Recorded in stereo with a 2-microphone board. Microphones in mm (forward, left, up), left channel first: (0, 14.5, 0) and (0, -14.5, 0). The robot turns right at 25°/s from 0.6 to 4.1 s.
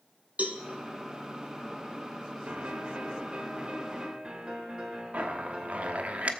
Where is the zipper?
55° right (ahead or behind), 0.9 m.